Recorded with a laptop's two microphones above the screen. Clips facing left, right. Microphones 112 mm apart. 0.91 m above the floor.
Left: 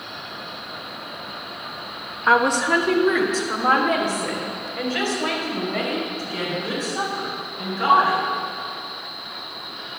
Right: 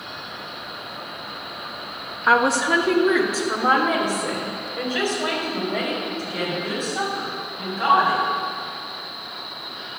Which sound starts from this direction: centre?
A woman speaking, at 2.3 s.